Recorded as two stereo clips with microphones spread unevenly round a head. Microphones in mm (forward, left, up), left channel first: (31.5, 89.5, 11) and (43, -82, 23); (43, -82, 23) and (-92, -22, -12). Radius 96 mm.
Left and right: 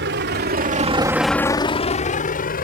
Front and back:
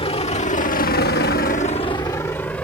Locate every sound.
0.0 s a vehicle: 70° right; by 2.6 s 55° left